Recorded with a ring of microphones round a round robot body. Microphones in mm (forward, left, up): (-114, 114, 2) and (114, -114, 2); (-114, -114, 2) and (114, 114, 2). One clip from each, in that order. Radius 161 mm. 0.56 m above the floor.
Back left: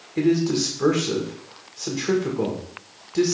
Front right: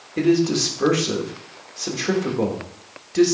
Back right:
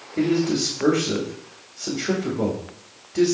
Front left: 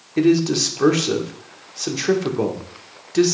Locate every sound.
0.2 s a man speaking: 35° left, 1.4 m